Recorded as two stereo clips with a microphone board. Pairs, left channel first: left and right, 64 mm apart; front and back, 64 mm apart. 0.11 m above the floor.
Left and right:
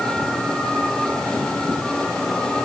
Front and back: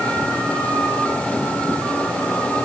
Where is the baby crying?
I don't hear a baby crying.